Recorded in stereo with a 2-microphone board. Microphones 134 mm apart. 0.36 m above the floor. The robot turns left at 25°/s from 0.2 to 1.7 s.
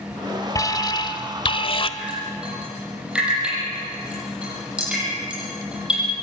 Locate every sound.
0.6 s an alarm: 25° left (ahead or behind), 1.2 m; by 1.9 s 40° left (ahead or behind), 1.2 m
2.0 s dripping: 10° right (ahead or behind), 9 m